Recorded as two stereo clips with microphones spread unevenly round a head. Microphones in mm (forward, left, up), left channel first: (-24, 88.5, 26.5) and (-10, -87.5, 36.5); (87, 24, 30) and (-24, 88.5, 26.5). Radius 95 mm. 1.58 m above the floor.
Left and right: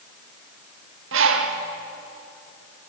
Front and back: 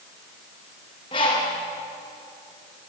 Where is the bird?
95° right, 1.7 m.